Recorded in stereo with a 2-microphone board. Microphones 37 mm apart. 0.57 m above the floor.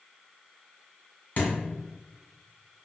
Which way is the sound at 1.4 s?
50° left (ahead or behind).